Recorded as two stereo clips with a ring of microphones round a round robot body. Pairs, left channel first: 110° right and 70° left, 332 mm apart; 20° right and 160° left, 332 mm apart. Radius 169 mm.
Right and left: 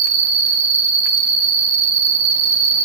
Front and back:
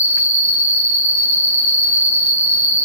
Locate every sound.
0.0 s an insect: 75° left, 1.0 m